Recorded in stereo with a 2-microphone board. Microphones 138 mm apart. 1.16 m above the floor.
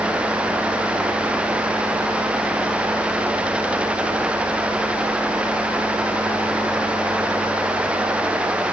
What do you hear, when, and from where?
Only background noise.